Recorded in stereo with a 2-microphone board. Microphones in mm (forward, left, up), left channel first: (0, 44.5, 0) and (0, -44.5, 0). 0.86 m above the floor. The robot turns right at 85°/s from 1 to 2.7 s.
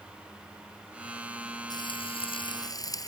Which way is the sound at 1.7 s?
55° left.